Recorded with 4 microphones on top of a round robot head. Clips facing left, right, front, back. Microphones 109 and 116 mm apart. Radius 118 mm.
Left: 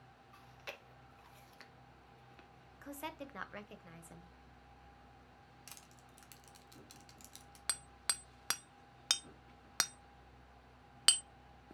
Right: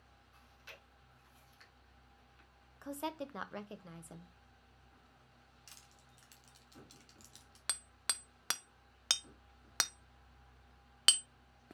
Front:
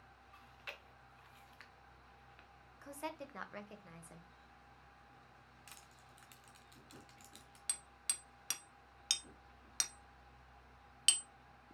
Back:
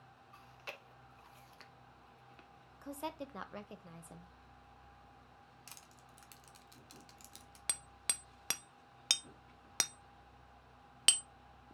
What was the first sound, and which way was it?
Chewing, 120° left.